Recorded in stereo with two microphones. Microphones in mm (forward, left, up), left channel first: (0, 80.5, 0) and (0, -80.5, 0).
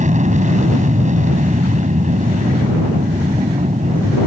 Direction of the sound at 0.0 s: 50° right (ahead or behind).